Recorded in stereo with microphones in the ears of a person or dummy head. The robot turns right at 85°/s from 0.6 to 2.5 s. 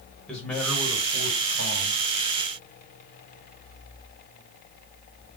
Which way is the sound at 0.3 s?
175° left.